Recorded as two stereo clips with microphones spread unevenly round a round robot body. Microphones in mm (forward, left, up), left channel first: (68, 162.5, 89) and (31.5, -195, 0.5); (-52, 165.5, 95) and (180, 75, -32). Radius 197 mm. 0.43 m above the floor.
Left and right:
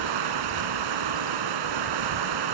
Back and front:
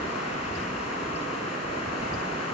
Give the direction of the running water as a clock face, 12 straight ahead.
4 o'clock.